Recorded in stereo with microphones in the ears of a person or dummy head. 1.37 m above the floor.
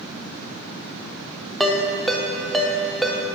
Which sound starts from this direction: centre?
A ringtone, at 1.6 s.